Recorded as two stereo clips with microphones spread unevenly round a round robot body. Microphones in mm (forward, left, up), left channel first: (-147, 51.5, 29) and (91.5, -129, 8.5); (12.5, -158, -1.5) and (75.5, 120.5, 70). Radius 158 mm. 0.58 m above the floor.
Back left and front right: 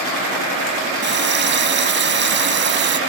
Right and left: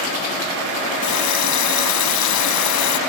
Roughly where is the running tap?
Right.